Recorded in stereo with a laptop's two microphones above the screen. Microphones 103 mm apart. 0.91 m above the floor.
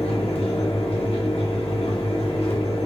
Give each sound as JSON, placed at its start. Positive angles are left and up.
{"t": 0.0, "sound": "a fan", "side_deg": 75, "distance_m": 0.8}